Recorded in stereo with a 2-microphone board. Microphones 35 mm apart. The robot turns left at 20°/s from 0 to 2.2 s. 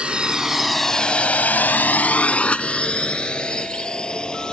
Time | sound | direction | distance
0.0 | a drone | 30° right (ahead or behind) | ?